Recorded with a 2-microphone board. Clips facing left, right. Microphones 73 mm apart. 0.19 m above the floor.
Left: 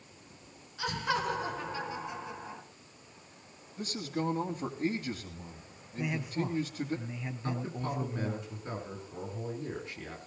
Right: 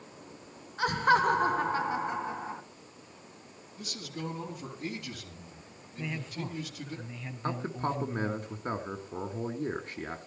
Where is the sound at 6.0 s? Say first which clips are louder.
Left 4 dB; 15° left (ahead or behind), 1.2 m.